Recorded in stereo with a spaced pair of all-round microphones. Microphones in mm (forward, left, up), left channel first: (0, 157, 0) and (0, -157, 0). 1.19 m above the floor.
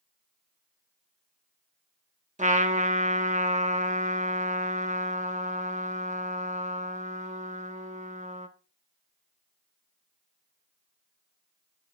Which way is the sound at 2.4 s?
25° right (ahead or behind).